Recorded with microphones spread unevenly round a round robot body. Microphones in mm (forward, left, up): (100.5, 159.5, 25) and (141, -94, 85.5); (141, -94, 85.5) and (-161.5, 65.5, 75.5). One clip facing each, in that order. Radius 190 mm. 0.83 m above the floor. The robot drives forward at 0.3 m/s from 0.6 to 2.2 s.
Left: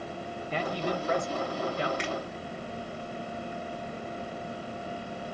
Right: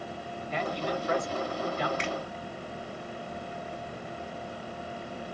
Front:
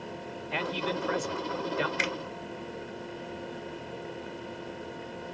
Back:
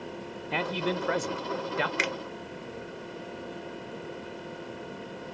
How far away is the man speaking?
About 0.5 m.